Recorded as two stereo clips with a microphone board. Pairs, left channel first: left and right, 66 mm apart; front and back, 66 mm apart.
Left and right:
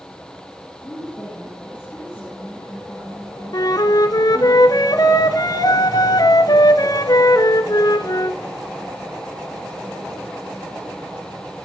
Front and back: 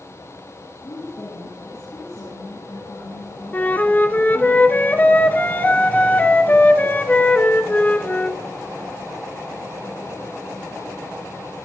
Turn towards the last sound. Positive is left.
turn(degrees=65)